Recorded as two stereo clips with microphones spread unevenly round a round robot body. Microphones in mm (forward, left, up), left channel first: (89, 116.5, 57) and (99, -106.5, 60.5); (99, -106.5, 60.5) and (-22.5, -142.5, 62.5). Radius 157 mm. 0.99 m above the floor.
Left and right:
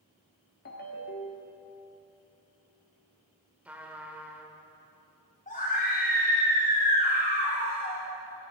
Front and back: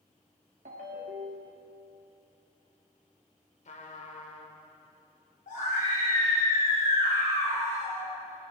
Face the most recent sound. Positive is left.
turn(degrees=40)